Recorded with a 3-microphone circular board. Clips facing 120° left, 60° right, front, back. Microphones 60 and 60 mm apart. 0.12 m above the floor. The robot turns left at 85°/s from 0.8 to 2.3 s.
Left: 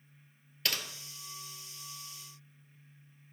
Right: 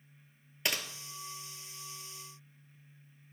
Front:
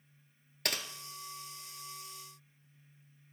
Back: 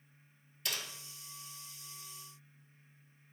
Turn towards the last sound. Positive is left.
turn(degrees=-120)